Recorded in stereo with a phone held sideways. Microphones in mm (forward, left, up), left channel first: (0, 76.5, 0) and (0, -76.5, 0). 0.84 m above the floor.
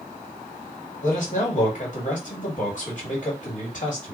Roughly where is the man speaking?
Left.